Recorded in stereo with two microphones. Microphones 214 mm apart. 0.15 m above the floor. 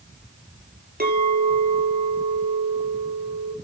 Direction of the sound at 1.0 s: 50° right (ahead or behind).